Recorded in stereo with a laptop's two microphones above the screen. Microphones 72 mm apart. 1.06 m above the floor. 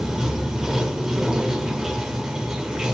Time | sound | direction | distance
0.0 | running water | 10° right (ahead or behind) | 0.8 m